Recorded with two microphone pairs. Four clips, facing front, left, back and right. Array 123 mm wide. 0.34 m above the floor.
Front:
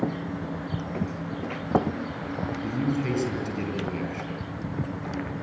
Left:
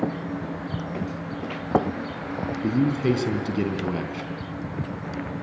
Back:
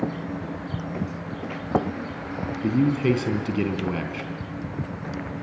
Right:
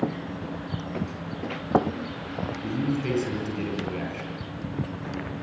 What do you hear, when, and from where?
2.6 s a man speaking: 140° left, 3.5 m